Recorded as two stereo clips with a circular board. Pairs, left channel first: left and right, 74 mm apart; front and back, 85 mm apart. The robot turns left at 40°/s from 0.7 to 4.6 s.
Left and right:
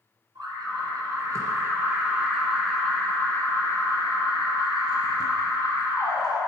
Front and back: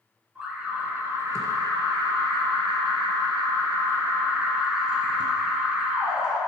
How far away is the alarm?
About 2 m.